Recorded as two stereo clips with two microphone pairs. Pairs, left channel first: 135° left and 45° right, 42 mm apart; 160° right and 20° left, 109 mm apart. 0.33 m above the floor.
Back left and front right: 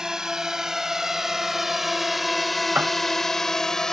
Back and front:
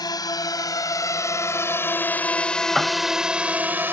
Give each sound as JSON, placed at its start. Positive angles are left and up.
{"t": 0.0, "sound": "a drone", "azimuth_deg": -120}
{"t": 2.8, "sound": "a piano", "azimuth_deg": -65}